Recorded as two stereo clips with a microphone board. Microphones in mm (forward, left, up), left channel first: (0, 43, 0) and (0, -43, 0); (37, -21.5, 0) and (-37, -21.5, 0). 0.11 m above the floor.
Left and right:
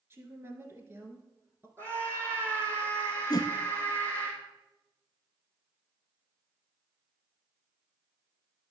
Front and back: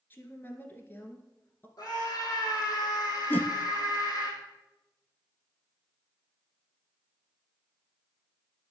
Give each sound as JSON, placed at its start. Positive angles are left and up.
{"t": 0.1, "sound": "a woman speaking", "azimuth_deg": -45, "distance_m": 1.5}
{"t": 1.8, "sound": "a scream", "azimuth_deg": -30, "distance_m": 4.5}
{"t": 3.3, "sound": "a whoosh", "azimuth_deg": 60, "distance_m": 0.5}